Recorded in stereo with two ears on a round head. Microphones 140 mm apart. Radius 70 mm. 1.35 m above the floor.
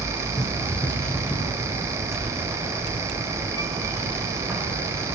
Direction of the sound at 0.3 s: 20° left (ahead or behind).